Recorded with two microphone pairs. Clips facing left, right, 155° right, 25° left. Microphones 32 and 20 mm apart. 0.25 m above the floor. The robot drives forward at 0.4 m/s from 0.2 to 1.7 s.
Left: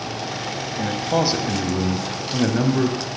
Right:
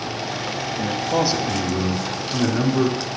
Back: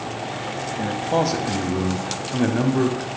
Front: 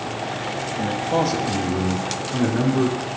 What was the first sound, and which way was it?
A man speaking, 130° left.